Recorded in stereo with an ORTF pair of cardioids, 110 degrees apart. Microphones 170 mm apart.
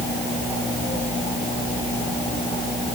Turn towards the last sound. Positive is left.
No sound to turn to.